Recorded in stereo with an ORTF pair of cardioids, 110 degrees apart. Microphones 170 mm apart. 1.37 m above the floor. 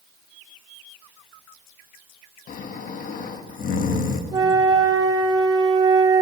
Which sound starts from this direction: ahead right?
A flute, at 4.3 s.